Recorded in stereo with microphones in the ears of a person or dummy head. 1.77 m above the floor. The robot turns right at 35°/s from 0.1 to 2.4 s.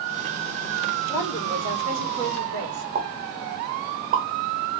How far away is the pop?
About 1.0 m.